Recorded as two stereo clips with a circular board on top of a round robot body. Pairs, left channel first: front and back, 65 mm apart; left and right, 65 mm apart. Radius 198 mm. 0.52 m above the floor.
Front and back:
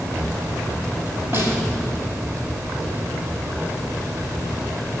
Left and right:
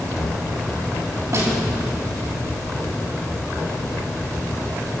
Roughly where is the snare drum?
Behind right.